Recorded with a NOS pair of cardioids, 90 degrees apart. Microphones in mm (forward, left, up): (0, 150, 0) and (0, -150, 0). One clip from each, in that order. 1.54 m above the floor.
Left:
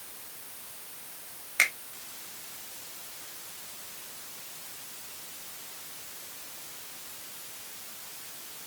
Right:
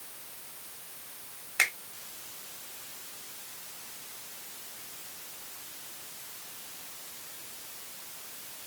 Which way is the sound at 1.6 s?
5° right.